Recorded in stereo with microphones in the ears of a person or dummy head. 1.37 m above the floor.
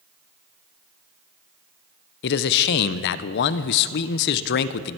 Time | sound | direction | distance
2.2 | a man speaking | 60° left (ahead or behind) | 0.5 m